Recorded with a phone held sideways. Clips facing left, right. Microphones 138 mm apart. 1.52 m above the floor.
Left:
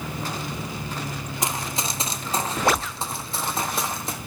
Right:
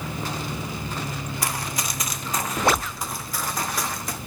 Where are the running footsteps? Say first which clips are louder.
Left 3 dB; 20° left (ahead or behind), 1.7 m; by 4.2 s 25° left (ahead or behind), 3.5 m.